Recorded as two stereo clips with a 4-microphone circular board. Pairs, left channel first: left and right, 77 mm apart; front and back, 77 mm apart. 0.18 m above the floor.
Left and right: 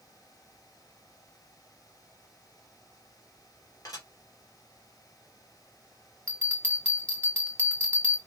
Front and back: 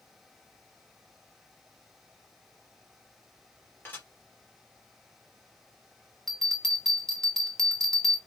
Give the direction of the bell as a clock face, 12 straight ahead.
10 o'clock.